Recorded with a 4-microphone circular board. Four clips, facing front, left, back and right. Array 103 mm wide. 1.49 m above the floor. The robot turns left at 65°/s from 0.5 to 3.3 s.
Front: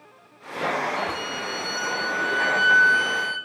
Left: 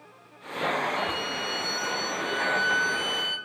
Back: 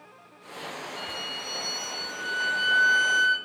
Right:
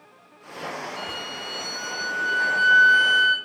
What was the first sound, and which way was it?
A violin, 55° left.